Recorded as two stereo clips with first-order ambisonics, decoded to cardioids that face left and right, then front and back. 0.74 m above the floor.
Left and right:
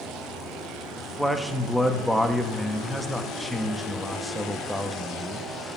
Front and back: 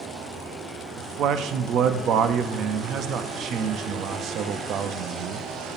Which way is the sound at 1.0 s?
175° left.